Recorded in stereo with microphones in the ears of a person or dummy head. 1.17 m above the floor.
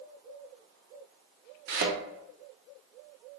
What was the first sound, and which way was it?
A thud, 60° right (ahead or behind).